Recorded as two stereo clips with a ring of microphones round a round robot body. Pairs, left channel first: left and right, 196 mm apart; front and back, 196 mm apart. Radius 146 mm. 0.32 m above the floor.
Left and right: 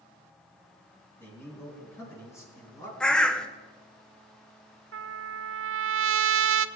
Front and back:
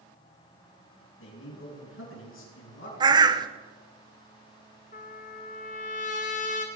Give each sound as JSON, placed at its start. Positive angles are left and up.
{"t": 1.2, "sound": "a man speaking", "azimuth_deg": 10, "distance_m": 5.5}
{"t": 3.0, "sound": "a bird", "azimuth_deg": 165, "distance_m": 0.9}
{"t": 4.9, "sound": "a trumpet", "azimuth_deg": -65, "distance_m": 0.5}